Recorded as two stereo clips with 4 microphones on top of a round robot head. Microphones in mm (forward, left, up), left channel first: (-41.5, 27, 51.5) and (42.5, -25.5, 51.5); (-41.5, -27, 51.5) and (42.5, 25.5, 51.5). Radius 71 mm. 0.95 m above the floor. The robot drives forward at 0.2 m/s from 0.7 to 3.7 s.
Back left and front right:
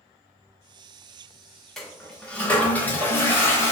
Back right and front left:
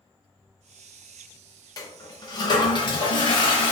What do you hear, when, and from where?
1.8 s a toilet flushing: 125° right, 0.7 m; by 3.7 s 150° right, 0.9 m